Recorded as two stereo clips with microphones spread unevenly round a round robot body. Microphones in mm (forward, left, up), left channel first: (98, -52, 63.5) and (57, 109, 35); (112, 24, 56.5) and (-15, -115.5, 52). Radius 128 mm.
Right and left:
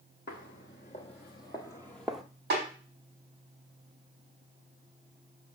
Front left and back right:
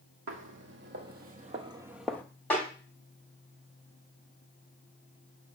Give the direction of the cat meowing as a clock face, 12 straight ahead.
No cat meowing in this recording.